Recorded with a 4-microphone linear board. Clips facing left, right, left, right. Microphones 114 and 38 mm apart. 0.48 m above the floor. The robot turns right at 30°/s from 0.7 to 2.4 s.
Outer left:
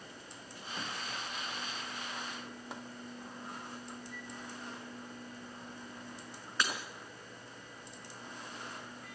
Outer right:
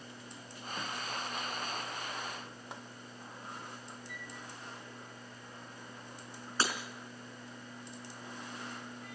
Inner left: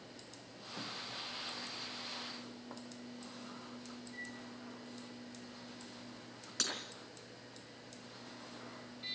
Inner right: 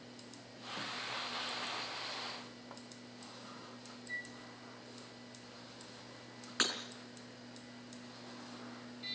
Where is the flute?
70° right (ahead or behind), 6.5 m.